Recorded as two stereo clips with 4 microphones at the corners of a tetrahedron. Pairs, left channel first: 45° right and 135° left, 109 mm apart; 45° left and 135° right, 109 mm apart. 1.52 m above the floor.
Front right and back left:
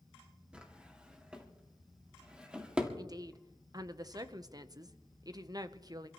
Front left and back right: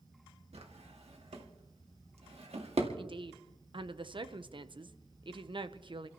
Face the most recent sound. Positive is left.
turn(degrees=-170)